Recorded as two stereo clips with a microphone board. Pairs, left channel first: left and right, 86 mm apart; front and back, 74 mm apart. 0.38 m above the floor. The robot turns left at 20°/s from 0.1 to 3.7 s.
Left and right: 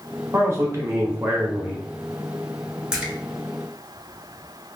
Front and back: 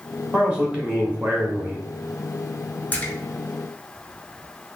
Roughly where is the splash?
Ahead right.